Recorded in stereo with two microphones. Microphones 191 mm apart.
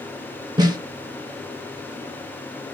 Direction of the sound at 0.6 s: 20° right (ahead or behind).